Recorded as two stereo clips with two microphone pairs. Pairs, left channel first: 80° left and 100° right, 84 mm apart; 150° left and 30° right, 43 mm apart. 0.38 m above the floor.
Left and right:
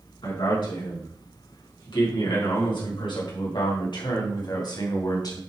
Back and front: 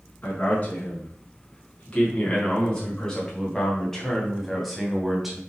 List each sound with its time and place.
0.2 s a man speaking: 95° left, 4 m; by 5.4 s 50° left, 2.5 m